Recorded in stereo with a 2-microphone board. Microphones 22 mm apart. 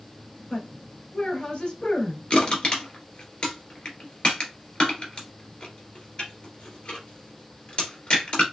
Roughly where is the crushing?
Left.